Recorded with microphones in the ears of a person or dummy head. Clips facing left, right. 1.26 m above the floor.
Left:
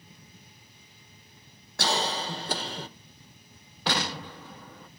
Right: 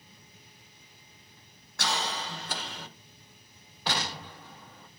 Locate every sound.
1.8 s a cough: 30° left (ahead or behind), 1.3 m
3.9 s an explosion: 55° left (ahead or behind), 1.1 m